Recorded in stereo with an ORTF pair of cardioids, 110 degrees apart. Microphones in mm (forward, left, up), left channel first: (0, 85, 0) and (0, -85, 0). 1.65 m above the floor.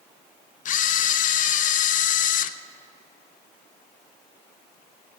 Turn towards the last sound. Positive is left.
turn(degrees=50)